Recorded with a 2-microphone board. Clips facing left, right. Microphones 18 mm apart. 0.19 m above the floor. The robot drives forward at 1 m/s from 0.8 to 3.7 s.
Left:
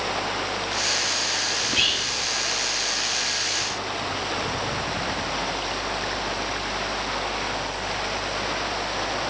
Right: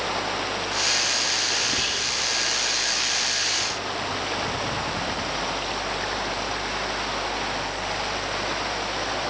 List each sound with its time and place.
1.6 s whispering: 45° left (ahead or behind), 5 m